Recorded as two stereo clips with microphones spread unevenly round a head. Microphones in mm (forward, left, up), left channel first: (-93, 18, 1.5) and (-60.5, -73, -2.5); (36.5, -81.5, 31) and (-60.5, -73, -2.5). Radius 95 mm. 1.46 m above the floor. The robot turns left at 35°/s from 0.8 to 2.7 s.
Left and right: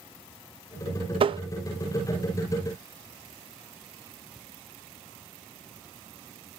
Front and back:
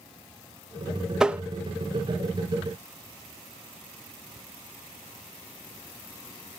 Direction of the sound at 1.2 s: 100° right.